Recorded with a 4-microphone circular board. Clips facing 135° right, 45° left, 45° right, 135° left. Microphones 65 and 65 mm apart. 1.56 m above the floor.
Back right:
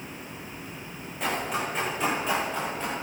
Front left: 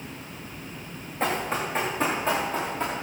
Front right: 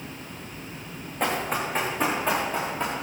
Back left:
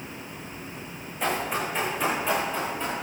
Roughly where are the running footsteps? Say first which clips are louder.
Front left 2 dB, front right 1 dB; ahead.